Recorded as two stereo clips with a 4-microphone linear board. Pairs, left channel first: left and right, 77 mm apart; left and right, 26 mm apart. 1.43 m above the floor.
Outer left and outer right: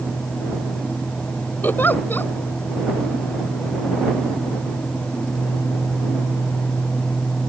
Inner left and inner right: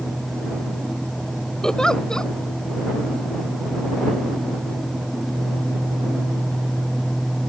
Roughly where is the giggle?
Left.